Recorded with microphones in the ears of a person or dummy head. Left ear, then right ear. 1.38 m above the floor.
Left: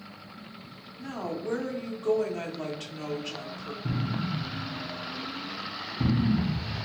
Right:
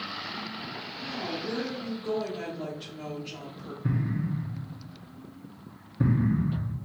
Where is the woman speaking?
40° left (ahead or behind), 1.0 m.